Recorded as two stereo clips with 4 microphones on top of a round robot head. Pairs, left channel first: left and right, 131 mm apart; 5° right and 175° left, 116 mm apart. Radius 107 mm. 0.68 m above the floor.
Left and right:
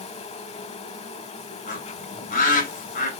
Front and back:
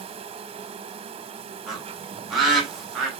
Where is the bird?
85° left, 4.5 m.